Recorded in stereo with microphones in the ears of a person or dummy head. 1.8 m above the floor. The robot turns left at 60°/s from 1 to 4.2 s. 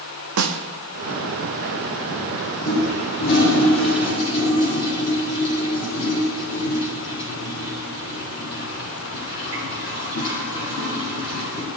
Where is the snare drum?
75° right (ahead or behind), 0.9 m.